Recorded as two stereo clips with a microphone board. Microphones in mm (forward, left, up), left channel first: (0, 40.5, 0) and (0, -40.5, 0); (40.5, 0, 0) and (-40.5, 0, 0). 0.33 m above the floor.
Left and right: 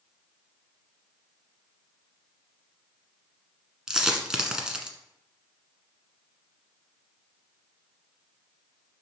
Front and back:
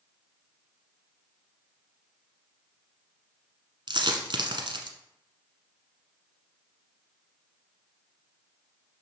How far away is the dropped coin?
About 1.2 m.